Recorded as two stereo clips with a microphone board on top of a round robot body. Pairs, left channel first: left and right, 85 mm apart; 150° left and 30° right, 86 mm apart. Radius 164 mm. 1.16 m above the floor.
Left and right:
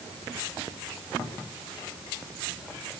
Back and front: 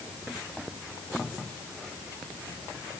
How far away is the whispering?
No whispering in this recording.